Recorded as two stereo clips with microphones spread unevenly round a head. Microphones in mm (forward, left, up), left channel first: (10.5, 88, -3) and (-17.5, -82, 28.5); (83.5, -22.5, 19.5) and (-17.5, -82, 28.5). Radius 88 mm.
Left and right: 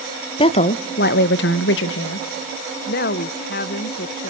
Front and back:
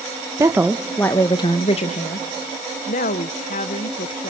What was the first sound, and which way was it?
A woman speaking, 140° left.